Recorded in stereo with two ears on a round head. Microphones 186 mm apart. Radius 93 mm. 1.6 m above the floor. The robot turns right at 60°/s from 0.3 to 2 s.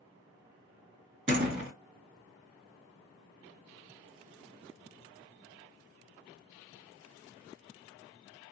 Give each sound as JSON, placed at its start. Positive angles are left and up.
{"t": 1.3, "sound": "a door slam", "side_deg": -35, "distance_m": 1.4}